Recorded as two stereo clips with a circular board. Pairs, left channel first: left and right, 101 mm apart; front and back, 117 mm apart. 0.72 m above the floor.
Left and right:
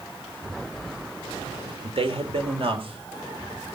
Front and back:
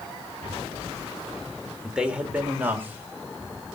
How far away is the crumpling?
No crumpling in this recording.